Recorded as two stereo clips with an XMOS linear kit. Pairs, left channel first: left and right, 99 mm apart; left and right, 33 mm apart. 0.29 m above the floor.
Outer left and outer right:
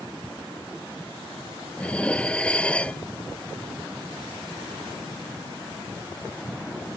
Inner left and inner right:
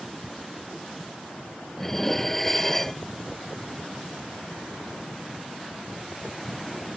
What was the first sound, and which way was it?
Dishes clattering, 10° left (ahead or behind).